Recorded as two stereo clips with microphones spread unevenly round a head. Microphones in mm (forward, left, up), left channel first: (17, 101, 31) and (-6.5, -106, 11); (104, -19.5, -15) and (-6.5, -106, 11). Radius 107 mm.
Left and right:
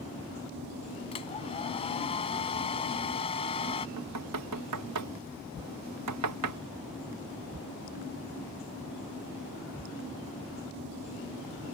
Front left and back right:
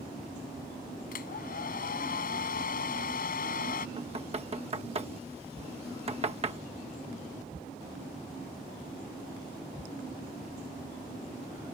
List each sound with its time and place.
1.1 s a hair dryer: 25° left
4.0 s knocking: 100° right